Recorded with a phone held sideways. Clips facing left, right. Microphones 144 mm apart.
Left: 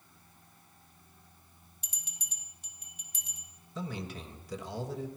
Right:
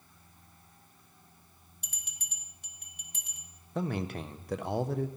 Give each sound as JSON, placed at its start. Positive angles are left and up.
{"t": 1.8, "sound": "a bell", "side_deg": -60, "distance_m": 1.8}
{"t": 3.8, "sound": "a man speaking", "side_deg": -60, "distance_m": 1.2}